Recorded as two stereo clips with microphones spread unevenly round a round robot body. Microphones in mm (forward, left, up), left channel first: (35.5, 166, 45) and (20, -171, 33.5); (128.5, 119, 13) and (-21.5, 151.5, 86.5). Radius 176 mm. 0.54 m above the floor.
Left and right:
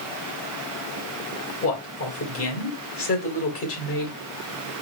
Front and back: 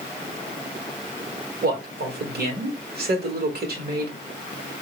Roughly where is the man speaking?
Behind left.